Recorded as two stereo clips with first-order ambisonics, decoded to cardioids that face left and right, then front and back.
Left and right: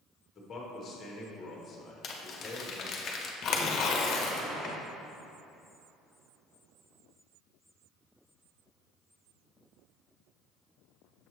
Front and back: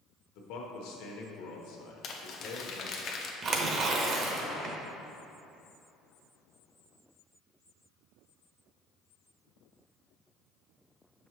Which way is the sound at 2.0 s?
40° left.